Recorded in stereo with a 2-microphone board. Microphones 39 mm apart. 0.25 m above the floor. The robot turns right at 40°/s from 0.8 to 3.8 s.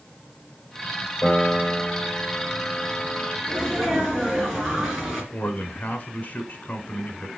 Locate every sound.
1.2 s a piano: 40° left, 5 m; by 3.4 s 130° left, 5 m
3.5 s a sneeze: 10° left (ahead or behind), 4 m; by 5.2 s centre (ahead or behind), 4 m
5.3 s a man speaking: 40° left (ahead or behind), 1.7 m